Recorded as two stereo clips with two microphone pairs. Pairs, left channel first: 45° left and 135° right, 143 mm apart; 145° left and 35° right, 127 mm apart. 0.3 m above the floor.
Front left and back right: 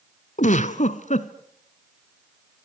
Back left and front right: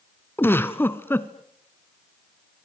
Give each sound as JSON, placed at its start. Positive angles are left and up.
{"t": 0.4, "sound": "a giggle", "azimuth_deg": 70, "distance_m": 1.1}